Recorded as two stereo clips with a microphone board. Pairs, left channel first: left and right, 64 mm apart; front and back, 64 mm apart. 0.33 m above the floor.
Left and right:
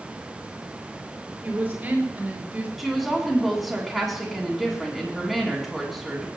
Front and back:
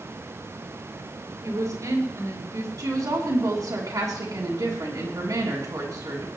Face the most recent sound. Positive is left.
turn(degrees=180)